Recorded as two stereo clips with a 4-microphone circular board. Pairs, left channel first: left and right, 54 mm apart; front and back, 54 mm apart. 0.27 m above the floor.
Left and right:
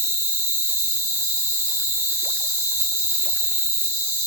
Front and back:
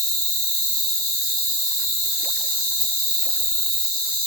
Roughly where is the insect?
Right.